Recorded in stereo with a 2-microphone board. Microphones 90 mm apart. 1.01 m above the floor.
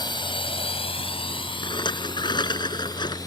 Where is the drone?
55° left (ahead or behind); by 3.3 s 45° left (ahead or behind).